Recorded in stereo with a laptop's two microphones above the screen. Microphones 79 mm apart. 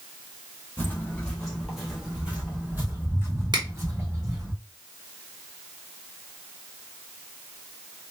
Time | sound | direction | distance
0.8 | footsteps | 20° left (ahead or behind) | 1.3 m
3.5 | a finger snap | 65° right (ahead or behind) | 1.1 m